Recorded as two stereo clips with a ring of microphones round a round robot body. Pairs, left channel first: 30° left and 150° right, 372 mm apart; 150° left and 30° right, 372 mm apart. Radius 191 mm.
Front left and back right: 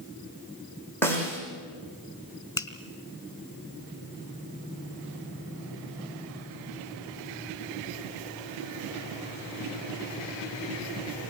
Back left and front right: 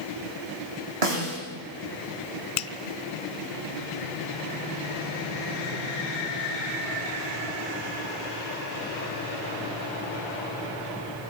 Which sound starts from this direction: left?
A finger snap, at 2.6 s.